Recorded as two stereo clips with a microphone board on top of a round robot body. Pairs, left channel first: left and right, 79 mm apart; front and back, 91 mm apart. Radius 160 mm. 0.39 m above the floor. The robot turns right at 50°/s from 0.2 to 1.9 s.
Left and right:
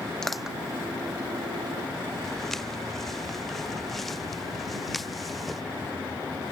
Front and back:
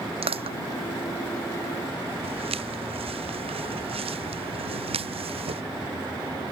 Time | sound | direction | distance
0.2 | crushing | 175° left | ?
2.2 | footsteps | 175° left | ?